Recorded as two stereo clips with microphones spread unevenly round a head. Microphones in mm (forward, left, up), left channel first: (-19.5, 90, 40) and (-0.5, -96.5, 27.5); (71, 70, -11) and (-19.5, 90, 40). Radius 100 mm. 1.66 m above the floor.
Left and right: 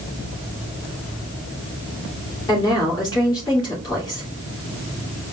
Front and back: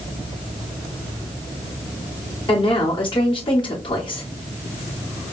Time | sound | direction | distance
2.5 | a woman speaking | 25° left | 2.5 m